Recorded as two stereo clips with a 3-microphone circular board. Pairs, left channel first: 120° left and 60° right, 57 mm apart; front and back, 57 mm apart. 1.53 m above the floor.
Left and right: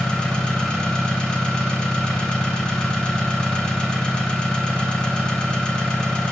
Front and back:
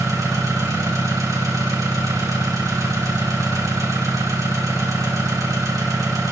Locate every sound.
0.0 s an engine running: 160° right, 1.6 m